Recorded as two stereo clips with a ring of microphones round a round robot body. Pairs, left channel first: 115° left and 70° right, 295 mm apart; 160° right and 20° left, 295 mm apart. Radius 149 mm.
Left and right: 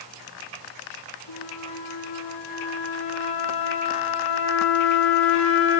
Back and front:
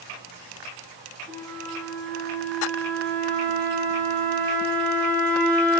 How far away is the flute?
About 5 m.